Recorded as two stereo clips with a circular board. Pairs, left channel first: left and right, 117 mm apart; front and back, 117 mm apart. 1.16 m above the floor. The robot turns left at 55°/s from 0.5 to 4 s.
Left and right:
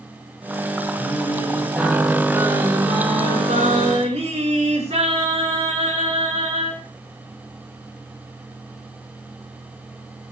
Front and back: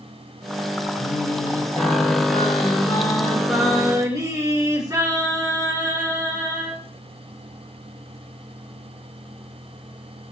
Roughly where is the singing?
Ahead left.